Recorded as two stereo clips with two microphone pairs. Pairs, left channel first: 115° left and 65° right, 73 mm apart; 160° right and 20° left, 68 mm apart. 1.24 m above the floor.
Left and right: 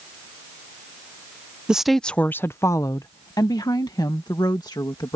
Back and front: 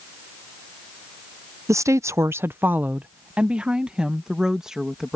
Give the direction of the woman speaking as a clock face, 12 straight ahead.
12 o'clock.